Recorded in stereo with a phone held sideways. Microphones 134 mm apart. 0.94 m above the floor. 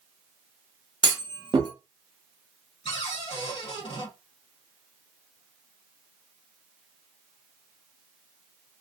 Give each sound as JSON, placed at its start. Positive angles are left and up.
{"t": 1.0, "sound": "a clunk", "side_deg": -35, "distance_m": 0.7}
{"t": 2.9, "sound": "a cupboard door", "side_deg": 45, "distance_m": 1.4}